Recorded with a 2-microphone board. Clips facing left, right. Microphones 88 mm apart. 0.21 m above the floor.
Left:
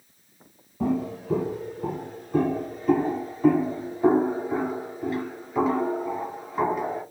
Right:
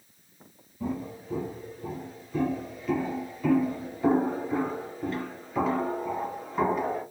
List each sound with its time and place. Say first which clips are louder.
0.8 s footsteps: left 7 dB; 85° left, 1.4 m; by 7.0 s centre (ahead or behind), 3 m